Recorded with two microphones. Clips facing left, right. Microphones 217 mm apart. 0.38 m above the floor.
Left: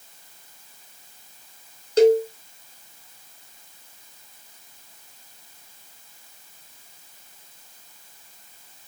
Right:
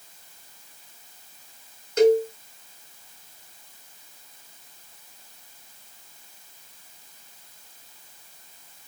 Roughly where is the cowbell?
Left.